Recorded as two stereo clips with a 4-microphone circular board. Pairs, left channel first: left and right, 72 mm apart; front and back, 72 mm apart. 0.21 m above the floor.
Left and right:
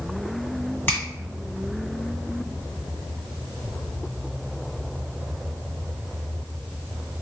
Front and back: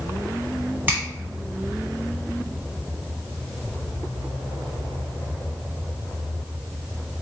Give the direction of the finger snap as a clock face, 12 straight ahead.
8 o'clock.